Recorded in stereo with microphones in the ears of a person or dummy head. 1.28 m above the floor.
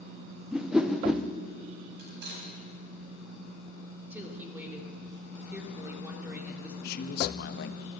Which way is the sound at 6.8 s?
60° left (ahead or behind).